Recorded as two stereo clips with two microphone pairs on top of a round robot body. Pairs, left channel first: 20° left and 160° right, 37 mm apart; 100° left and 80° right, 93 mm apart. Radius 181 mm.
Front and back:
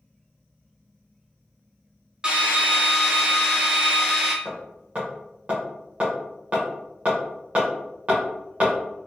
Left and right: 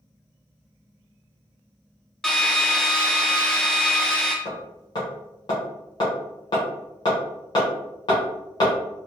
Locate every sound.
2.2 s a drill: straight behind, 1.1 m
4.5 s hammering: 145° left, 0.8 m